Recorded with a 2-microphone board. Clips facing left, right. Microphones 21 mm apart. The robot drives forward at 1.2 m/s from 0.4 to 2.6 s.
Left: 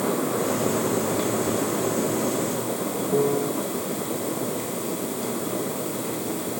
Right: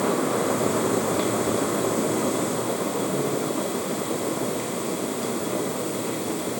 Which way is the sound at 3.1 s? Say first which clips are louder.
Left 3 dB; 65° left (ahead or behind).